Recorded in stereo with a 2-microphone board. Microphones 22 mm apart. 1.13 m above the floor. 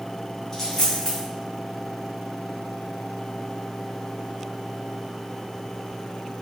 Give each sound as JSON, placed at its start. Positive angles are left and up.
{"t": 0.5, "sound": "a dropped coin", "side_deg": 15, "distance_m": 1.8}